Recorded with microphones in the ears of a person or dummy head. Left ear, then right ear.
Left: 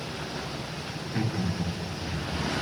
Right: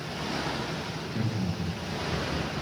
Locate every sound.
1.0 s laughter: 80° left, 1.6 m; by 2.6 s 55° left (ahead or behind), 2.5 m